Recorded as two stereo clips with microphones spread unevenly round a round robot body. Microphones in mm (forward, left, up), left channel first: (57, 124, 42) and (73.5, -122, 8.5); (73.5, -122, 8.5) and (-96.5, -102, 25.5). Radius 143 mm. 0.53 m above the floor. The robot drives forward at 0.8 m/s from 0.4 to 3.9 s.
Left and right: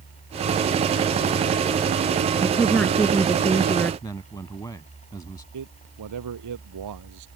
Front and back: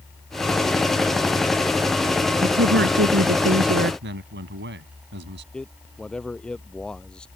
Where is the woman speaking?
Straight behind.